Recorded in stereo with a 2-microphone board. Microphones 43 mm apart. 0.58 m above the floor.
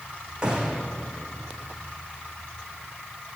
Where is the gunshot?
20° right (ahead or behind), 7 m.